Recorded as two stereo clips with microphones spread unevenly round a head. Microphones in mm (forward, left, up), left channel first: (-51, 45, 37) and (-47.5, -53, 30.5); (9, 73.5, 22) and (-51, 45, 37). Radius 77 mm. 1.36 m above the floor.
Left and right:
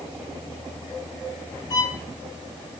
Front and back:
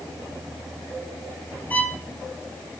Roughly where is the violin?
Left.